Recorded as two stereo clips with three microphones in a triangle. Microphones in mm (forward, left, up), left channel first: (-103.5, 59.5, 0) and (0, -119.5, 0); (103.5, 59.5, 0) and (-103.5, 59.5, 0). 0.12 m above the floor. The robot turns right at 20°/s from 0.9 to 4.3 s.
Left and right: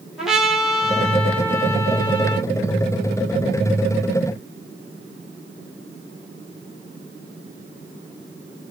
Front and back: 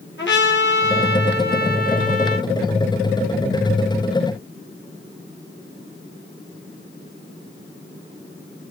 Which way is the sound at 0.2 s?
30° left.